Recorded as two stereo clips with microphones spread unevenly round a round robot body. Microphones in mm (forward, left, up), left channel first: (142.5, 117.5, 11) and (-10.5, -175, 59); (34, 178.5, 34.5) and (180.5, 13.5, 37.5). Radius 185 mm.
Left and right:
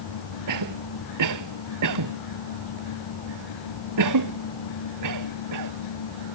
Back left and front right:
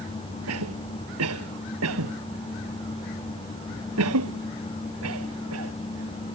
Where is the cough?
85° right.